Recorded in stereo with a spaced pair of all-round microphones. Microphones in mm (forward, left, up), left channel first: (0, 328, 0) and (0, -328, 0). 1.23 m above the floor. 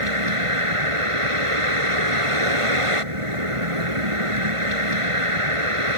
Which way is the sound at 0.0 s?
50° right (ahead or behind).